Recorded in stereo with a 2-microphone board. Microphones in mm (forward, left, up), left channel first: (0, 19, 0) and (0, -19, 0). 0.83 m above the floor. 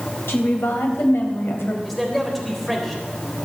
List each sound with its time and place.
0.3 s a woman speaking: 80° left, 3.5 m
1.9 s a man speaking: 5° left (ahead or behind), 3.5 m